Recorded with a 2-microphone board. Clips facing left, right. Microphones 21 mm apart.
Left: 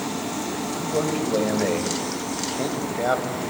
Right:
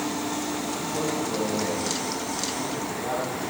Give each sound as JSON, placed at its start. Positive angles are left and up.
{"t": 0.7, "sound": "a man speaking", "side_deg": 45, "distance_m": 2.0}